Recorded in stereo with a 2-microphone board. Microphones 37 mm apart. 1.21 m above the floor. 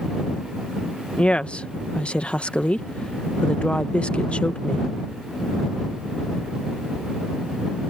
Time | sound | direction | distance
1.2 | a woman speaking | 30° left (ahead or behind) | ?